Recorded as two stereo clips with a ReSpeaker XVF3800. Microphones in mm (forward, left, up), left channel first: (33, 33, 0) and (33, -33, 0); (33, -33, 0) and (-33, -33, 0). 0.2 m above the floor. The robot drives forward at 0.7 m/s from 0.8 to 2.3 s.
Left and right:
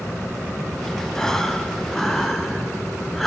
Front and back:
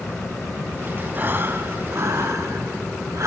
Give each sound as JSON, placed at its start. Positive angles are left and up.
{"t": 1.2, "sound": "breathing", "azimuth_deg": 165, "distance_m": 0.8}